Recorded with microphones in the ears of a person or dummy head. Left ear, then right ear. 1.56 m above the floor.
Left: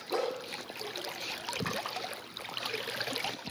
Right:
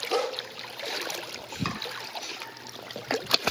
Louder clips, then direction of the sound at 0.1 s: Right 4 dB; 50° right (ahead or behind).